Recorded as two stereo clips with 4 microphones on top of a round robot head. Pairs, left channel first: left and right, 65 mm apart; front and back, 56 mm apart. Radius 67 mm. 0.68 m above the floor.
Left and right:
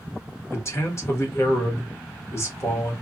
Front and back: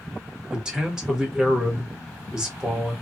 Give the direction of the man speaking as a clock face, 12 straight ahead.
8 o'clock.